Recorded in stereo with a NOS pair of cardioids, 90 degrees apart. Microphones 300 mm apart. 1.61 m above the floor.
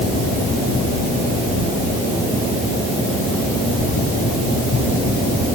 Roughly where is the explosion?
No explosion in this recording.